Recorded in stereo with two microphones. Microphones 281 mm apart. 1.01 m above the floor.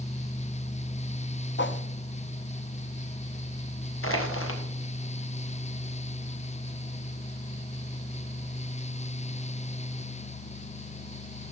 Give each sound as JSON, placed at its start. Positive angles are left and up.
{"t": 1.6, "sound": "a whoosh", "side_deg": 40, "distance_m": 0.5}
{"t": 4.0, "sound": "crushing", "side_deg": 50, "distance_m": 1.3}